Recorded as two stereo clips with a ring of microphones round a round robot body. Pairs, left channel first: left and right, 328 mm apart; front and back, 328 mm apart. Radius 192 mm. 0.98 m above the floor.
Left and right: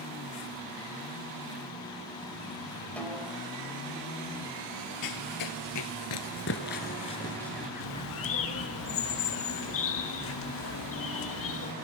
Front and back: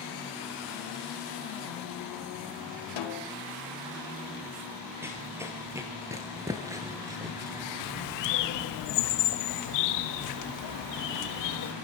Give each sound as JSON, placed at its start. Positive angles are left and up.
{"t": 3.0, "sound": "a snare drum", "azimuth_deg": 5, "distance_m": 1.6}
{"t": 5.0, "sound": "running footsteps", "azimuth_deg": 95, "distance_m": 1.6}
{"t": 7.8, "sound": "a bird", "azimuth_deg": 35, "distance_m": 1.2}